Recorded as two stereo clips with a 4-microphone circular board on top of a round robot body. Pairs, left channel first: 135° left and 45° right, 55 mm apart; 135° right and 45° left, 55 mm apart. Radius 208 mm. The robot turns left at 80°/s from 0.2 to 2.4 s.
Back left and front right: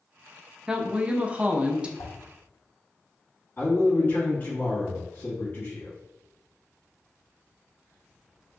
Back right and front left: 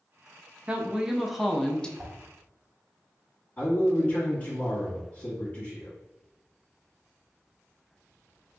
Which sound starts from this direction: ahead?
A woman speaking, at 0.7 s.